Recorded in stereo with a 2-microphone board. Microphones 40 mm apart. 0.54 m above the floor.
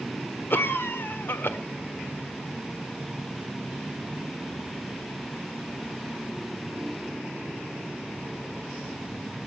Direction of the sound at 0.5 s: 60° left (ahead or behind).